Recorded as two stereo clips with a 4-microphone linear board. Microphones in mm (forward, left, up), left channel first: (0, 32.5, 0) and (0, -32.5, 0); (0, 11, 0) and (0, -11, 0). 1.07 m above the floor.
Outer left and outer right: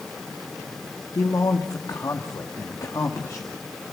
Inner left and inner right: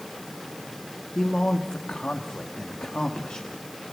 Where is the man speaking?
55° left (ahead or behind), 2.0 m.